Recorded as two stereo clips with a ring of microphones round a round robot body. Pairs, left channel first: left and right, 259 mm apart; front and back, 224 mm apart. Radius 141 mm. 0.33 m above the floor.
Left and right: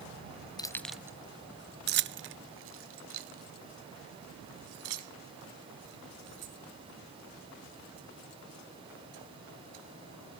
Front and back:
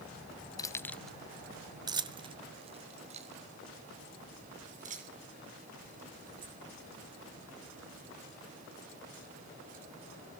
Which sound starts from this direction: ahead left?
Keys jangling, at 0.6 s.